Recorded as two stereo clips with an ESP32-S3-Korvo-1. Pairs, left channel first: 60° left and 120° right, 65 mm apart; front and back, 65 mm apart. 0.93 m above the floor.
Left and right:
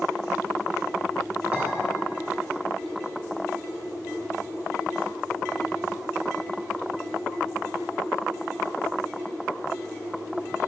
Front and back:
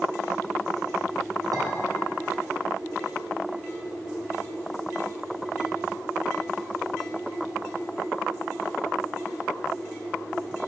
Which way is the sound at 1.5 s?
165° left.